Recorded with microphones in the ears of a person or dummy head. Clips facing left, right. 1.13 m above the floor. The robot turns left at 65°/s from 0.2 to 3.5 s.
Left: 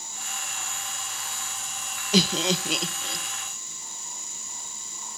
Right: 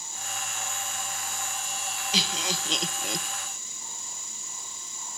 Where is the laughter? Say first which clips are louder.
Left 10 dB; 45° left (ahead or behind), 0.6 m; by 3.2 s 20° right (ahead or behind), 0.6 m.